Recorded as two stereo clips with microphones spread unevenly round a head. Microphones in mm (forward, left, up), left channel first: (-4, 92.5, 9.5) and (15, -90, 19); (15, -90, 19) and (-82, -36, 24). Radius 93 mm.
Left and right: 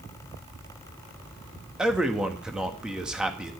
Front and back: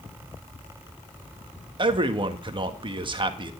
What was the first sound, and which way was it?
A man speaking, 170° right.